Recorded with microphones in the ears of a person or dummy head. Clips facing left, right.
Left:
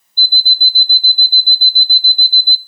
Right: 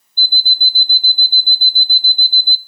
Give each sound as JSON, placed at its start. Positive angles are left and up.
{"t": 0.2, "sound": "an alarm clock", "side_deg": -15, "distance_m": 0.8}